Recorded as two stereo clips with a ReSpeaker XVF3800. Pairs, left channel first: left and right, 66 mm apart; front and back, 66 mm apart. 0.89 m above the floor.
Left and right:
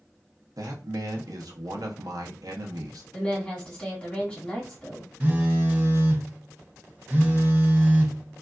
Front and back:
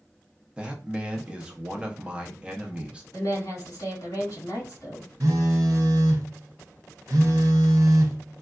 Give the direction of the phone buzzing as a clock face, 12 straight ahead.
5 o'clock.